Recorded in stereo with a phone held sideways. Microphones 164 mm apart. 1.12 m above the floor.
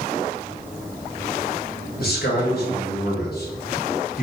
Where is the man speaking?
70° left (ahead or behind), 1.6 m.